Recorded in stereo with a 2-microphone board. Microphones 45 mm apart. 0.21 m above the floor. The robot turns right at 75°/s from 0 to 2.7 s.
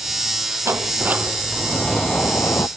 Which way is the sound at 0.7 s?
70° right.